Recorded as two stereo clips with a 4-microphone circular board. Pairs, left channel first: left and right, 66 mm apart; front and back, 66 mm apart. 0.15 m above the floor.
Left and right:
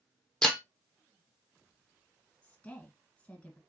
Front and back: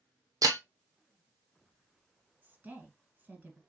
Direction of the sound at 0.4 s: 170° left.